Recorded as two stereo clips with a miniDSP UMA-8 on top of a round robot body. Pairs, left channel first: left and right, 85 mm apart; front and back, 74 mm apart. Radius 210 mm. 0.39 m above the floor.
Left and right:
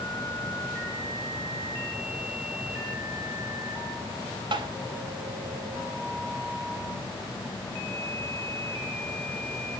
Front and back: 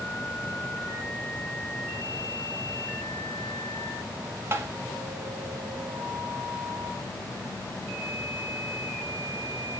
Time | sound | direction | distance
4.5 | tapping | 125° right | 0.6 m